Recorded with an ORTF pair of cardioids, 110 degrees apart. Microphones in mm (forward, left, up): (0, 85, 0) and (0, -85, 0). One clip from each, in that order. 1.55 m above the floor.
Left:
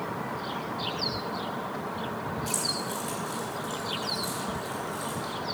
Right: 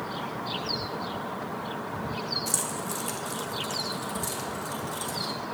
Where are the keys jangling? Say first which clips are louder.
Left 1 dB; 35° right, 2.5 m; by 5.3 s 50° right, 4 m.